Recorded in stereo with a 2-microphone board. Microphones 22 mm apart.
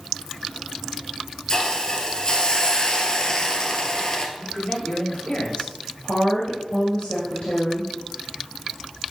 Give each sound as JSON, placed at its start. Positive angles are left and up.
{"t": 1.5, "sound": "a hiss", "side_deg": 30, "distance_m": 1.1}
{"t": 4.4, "sound": "a man speaking", "side_deg": 45, "distance_m": 2.5}
{"t": 6.0, "sound": "a woman speaking", "side_deg": 45, "distance_m": 2.5}